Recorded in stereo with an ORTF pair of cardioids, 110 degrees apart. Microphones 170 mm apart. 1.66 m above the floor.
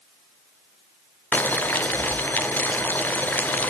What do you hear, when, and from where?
1.3 s boiling: 10° left, 0.6 m